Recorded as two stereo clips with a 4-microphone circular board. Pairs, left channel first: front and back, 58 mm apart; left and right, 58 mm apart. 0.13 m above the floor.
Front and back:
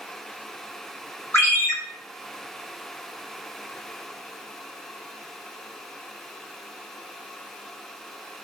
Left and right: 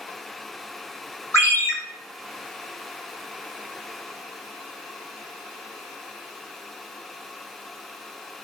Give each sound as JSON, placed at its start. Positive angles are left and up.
{"t": 1.3, "sound": "a ringtone", "azimuth_deg": 50, "distance_m": 2.0}